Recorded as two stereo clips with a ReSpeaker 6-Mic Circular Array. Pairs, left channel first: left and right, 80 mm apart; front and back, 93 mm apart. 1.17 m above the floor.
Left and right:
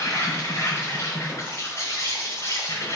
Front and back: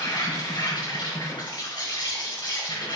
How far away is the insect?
About 5 m.